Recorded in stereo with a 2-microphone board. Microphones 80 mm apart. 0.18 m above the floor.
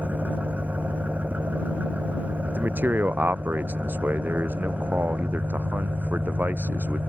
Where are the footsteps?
No footsteps in this recording.